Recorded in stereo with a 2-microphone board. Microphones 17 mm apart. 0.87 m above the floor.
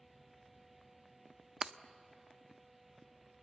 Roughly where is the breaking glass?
Right.